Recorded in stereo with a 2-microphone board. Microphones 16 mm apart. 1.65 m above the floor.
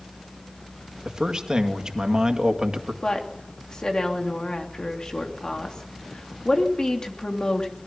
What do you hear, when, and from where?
1.1 s a man speaking: 40° right (ahead or behind), 2 m
3.0 s a woman speaking: 45° left (ahead or behind), 3 m